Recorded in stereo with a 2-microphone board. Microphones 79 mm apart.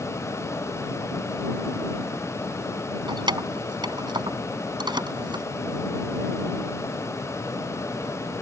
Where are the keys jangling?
75° right (ahead or behind).